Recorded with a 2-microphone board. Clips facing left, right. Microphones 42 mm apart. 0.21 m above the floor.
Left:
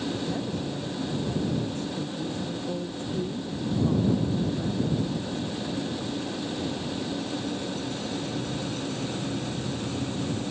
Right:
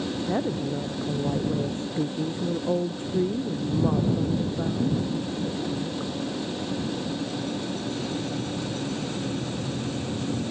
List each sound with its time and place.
0.3 s a woman speaking: 30° right (ahead or behind)